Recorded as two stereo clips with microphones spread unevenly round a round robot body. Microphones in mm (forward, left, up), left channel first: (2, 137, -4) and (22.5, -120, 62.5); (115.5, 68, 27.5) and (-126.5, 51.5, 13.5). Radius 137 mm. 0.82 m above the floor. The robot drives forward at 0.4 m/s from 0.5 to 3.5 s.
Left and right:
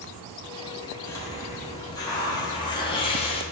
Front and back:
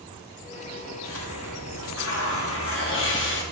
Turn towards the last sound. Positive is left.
turn(degrees=40)